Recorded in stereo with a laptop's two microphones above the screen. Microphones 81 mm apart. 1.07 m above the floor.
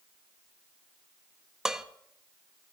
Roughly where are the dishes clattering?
Centre.